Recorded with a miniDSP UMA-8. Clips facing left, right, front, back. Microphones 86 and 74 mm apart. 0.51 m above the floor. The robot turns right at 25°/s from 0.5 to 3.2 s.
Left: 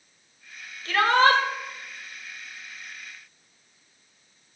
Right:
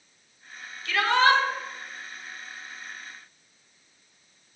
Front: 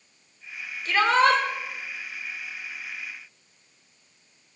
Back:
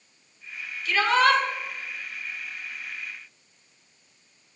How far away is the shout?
About 1.8 m.